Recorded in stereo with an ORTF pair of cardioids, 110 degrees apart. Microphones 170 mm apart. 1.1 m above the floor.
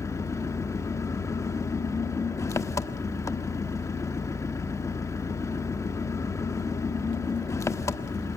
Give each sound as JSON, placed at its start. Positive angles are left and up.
{"t": 0.0, "sound": "an engine running", "azimuth_deg": 20, "distance_m": 1.2}